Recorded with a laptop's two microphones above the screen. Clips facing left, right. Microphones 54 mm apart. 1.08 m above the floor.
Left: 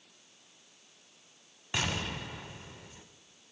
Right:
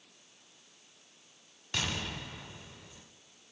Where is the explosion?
20° left (ahead or behind), 1.6 m.